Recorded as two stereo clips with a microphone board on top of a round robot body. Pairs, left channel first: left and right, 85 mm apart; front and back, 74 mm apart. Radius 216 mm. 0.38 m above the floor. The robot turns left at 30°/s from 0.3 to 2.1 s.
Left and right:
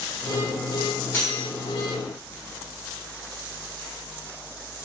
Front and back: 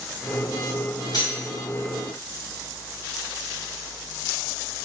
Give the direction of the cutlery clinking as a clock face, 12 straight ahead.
11 o'clock.